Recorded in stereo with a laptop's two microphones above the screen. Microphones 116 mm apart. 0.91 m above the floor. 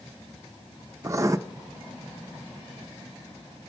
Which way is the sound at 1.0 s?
25° right (ahead or behind).